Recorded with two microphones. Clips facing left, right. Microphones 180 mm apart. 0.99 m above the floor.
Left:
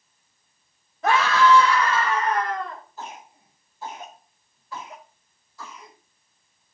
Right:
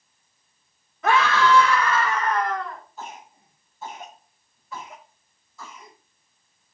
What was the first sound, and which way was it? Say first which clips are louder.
A scream: left 1 dB; 30° left (ahead or behind).